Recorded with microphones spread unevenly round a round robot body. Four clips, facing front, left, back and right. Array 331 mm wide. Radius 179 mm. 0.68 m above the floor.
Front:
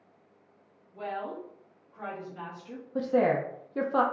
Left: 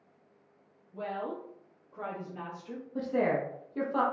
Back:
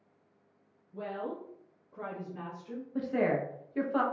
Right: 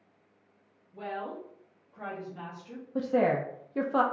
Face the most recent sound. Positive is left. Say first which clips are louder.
# right 3 dB, front 4 dB
turn(degrees=-35)